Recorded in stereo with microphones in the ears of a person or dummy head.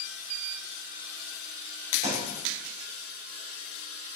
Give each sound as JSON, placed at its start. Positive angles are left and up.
{"t": 2.0, "sound": "a thud", "side_deg": -30, "distance_m": 2.0}